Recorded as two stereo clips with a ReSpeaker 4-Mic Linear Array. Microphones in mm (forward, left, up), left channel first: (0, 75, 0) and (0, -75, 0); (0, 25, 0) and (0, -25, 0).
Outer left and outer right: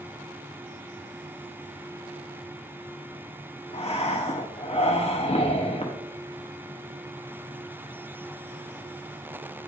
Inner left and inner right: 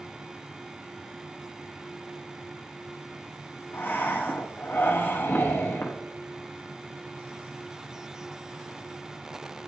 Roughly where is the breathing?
Left.